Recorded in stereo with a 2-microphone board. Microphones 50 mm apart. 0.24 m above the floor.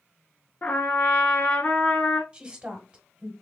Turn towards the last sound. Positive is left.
turn(degrees=-20)  # may be behind; listen again after turning